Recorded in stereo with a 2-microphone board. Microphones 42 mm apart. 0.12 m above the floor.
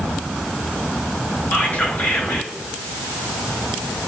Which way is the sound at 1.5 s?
40° left (ahead or behind).